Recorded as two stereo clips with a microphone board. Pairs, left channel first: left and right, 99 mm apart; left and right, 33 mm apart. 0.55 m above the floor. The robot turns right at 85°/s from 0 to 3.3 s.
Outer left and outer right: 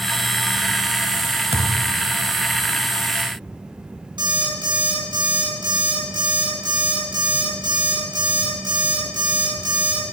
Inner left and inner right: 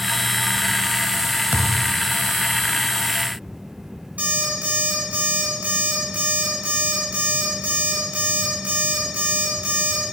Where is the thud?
95° right, 0.8 m; by 2.0 s 50° right, 0.8 m.